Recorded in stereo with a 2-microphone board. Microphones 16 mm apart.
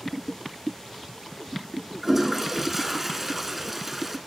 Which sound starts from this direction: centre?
A toilet flushing, at 2.0 s.